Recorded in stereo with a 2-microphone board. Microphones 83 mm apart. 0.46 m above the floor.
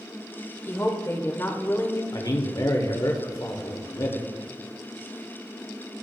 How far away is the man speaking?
About 1.1 m.